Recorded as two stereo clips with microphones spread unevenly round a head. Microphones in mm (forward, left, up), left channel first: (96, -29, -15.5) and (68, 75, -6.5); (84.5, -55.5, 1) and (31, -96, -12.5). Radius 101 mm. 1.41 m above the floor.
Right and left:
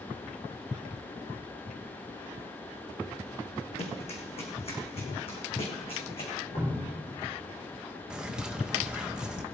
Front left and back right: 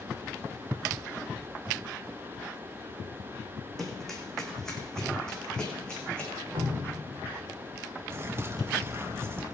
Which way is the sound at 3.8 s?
50° right.